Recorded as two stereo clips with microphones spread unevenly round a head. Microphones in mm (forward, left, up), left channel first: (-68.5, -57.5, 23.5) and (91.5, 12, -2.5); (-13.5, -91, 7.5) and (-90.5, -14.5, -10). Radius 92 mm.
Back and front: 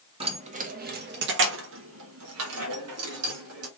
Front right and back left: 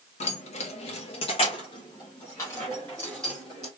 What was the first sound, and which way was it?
Keys jangling, 40° right.